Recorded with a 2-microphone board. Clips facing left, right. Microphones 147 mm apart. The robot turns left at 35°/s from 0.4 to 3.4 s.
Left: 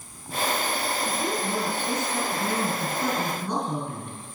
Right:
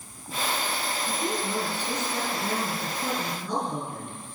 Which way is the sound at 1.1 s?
145° left.